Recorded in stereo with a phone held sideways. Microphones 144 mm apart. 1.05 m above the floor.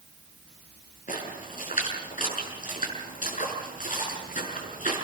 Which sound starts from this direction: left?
A splash, at 1.1 s.